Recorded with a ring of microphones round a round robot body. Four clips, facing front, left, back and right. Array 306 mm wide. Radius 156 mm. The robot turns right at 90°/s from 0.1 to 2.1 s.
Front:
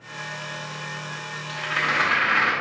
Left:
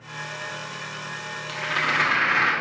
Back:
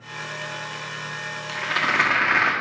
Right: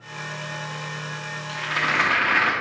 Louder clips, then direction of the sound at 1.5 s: Even, back 1 dB; 155° left.